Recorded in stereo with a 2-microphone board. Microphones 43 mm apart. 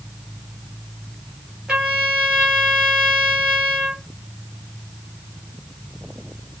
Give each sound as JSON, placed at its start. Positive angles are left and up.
{"t": 1.7, "sound": "a trumpet", "side_deg": -20, "distance_m": 4.5}